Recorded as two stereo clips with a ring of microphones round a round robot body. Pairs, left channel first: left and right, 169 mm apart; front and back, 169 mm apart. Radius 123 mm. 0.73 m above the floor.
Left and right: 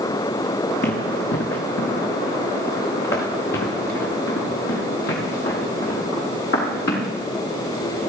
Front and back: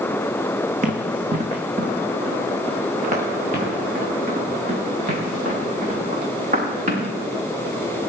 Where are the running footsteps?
140° left, 2.5 m.